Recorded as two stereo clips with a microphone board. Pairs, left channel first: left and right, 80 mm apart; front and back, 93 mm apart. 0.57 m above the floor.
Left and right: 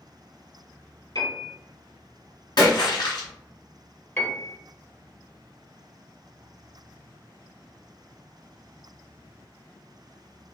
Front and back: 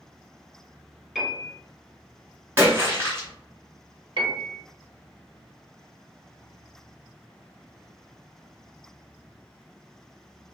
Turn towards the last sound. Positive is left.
turn(degrees=155)